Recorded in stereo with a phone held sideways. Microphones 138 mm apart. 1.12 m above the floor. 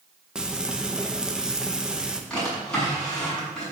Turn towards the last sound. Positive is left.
turn(degrees=5)  # may be behind; listen again after turning